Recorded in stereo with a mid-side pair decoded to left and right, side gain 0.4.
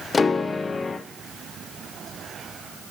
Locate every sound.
0.1 s a piano: 40° left, 0.8 m